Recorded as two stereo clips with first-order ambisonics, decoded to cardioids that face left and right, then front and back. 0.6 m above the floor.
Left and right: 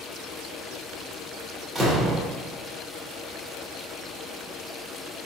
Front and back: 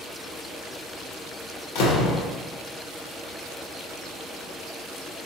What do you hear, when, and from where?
1.8 s a door slam: 5° right, 1.0 m